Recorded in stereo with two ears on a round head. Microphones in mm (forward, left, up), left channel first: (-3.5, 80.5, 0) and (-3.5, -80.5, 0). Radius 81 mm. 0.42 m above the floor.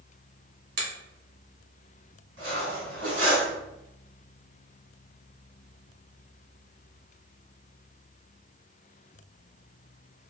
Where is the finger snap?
60° right (ahead or behind), 1.2 m.